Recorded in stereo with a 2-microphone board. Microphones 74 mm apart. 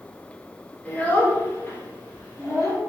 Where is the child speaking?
20° left (ahead or behind), 1.3 m; by 2.8 s 35° left (ahead or behind), 1.8 m.